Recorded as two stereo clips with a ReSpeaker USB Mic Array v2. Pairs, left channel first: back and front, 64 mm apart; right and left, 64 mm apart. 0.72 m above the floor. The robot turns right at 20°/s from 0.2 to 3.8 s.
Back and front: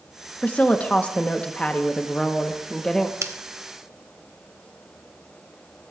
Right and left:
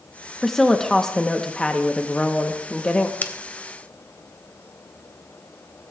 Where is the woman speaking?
165° right, 0.8 m; by 3.1 s 110° right, 0.8 m.